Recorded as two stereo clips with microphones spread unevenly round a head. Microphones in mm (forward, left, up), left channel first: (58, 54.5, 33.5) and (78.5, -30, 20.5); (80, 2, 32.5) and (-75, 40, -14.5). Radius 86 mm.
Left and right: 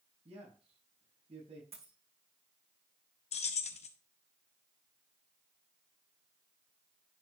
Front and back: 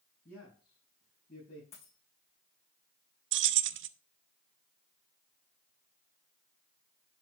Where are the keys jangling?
145° left, 0.7 m.